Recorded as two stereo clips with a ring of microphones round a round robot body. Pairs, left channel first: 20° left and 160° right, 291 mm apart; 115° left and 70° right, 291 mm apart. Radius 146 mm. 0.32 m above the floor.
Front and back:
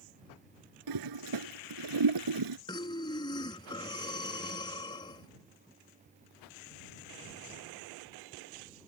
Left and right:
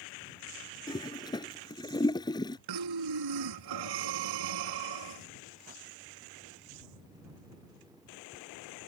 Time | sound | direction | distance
0.9 | a toilet flushing | 170° right | ?
2.7 | breathing | 55° right | ?